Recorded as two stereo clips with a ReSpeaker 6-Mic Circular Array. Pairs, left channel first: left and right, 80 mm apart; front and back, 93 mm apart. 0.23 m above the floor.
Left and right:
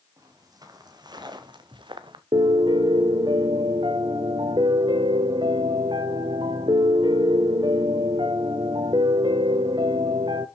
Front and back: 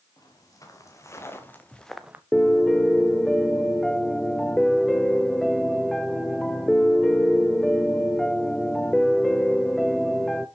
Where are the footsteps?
50° right, 3 m; by 2.2 s 110° right, 0.8 m.